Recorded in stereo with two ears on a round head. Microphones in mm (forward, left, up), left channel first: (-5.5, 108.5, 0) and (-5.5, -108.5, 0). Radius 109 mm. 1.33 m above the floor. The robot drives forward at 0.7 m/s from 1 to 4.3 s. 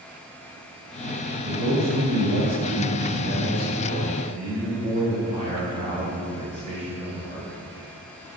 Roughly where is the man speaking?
Right.